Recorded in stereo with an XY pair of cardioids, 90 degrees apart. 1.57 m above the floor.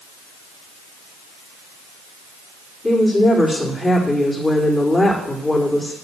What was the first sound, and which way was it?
A woman speaking, 25° left.